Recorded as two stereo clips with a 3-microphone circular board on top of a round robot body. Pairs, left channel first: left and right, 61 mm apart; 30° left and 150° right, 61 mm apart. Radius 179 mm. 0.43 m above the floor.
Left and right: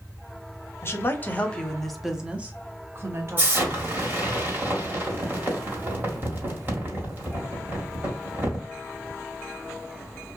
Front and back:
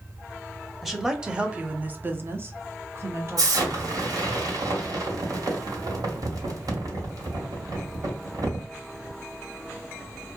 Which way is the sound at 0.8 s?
125° left.